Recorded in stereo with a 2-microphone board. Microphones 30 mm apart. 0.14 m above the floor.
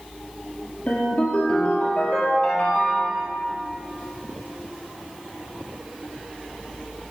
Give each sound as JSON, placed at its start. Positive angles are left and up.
{"t": 0.9, "sound": "a ringtone", "side_deg": 45, "distance_m": 2.0}